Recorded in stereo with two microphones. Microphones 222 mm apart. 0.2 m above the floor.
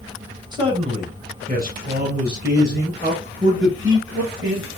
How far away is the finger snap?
No finger snap in this recording.